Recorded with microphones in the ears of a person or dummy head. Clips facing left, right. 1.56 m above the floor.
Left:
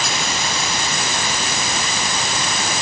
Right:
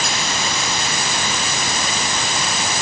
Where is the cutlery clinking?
I don't hear cutlery clinking.